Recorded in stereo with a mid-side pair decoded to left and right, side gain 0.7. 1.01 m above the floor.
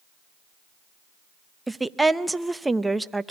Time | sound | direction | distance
1.7 | a woman speaking | 5° right | 0.7 m